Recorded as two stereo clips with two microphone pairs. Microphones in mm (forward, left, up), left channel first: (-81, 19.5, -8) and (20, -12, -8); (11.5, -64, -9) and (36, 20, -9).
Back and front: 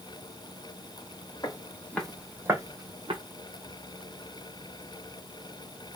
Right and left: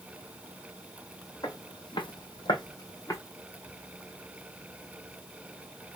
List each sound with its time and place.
1.4 s footsteps: 145° right, 1.2 m; by 3.2 s 55° right, 1.4 m